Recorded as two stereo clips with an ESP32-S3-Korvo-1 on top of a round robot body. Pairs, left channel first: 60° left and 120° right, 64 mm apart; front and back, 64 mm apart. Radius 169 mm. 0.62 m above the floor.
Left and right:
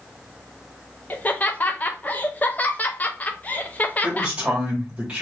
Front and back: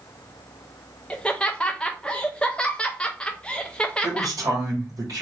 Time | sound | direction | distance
1.1 | laughter | 50° left | 0.7 m
4.0 | a man speaking | 170° left | 1.8 m